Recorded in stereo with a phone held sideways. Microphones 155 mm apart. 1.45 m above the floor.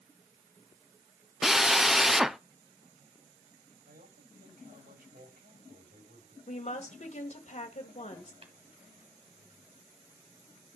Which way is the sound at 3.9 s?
85° right.